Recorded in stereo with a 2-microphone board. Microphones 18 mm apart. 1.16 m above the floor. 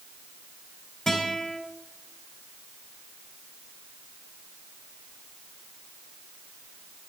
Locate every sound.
1.1 s a guitar: 40° left (ahead or behind), 3 m